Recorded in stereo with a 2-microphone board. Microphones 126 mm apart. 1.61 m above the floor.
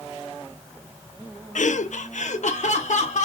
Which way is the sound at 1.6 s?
75° left (ahead or behind).